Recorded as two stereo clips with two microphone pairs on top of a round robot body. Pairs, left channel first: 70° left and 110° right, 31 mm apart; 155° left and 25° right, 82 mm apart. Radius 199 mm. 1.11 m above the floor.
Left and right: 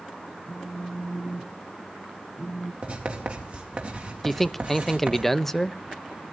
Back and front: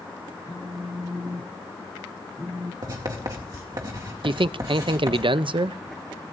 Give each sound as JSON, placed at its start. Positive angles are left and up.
{"t": 0.5, "sound": "a phone buzzing", "azimuth_deg": 10, "distance_m": 0.7}
{"t": 2.8, "sound": "writing", "azimuth_deg": -65, "distance_m": 2.0}
{"t": 4.2, "sound": "a man speaking", "azimuth_deg": -15, "distance_m": 0.6}